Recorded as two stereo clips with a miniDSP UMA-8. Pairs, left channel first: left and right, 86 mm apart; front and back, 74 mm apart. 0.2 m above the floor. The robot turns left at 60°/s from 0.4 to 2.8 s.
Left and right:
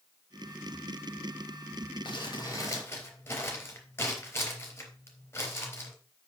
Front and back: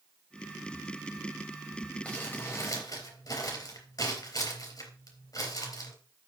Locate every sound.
2.0 s crumpling: 75° left, 4 m; by 6.0 s 30° left, 4 m